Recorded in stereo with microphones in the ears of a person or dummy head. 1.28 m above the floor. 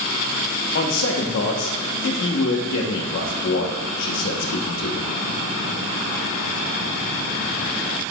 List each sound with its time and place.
0.8 s a man speaking: 65° left (ahead or behind), 1.1 m